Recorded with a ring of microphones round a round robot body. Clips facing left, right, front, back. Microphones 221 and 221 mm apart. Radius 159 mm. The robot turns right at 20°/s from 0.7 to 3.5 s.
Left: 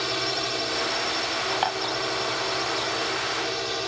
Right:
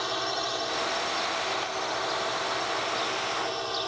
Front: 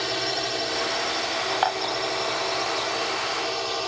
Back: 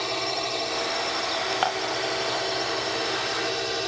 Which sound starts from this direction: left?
A drone, at 0.0 s.